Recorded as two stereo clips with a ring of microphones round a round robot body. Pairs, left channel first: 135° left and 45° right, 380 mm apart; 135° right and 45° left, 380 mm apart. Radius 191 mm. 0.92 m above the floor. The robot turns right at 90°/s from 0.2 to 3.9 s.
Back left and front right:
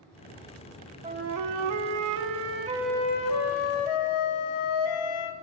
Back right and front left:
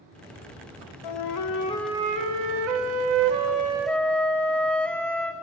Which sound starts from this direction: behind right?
A flute, at 1.0 s.